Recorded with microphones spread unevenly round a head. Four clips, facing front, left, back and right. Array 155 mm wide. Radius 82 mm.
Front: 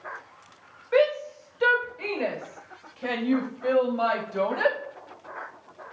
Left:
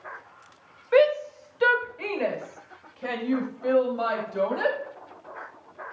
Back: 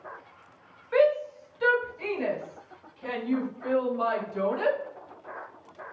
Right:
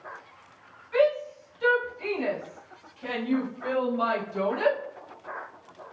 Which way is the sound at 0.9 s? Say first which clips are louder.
Left 4 dB, even; 75° left.